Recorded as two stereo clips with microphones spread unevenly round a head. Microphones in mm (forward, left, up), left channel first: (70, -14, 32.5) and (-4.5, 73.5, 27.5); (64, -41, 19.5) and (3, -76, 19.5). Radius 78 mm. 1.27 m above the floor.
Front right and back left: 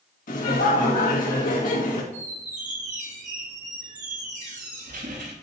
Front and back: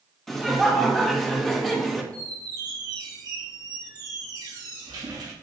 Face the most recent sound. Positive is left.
turn(degrees=170)